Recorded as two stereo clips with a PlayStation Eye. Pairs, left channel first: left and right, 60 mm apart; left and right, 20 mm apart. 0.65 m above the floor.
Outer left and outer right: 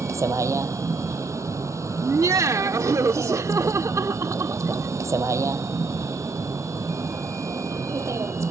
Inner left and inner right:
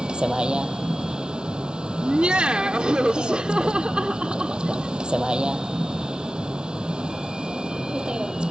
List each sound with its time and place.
0.0 s a vehicle: 60° right (ahead or behind)
2.0 s laughter: 65° right (ahead or behind)